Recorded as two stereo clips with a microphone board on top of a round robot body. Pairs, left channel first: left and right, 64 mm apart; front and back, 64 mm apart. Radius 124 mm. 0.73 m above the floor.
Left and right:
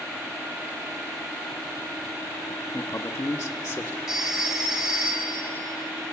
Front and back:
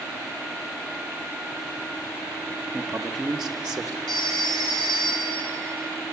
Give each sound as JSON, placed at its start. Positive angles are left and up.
{"t": 2.7, "sound": "a man speaking", "azimuth_deg": 85, "distance_m": 1.1}
{"t": 4.1, "sound": "a phone ringing", "azimuth_deg": -5, "distance_m": 5.5}